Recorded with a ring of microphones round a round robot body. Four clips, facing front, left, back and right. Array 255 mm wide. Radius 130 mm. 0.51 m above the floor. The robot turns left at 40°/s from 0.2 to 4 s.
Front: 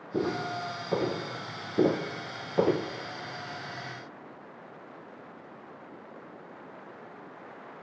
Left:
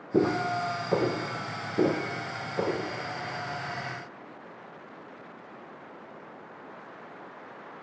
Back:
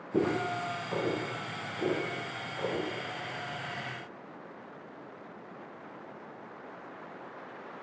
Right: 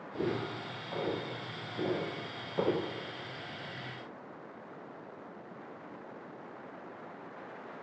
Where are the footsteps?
100° left, 6.5 m; by 2.9 s 10° right, 4.5 m.